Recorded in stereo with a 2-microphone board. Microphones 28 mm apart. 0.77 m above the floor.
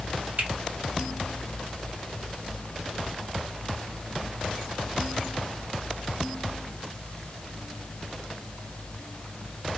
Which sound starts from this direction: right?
A finger snap, at 0.4 s.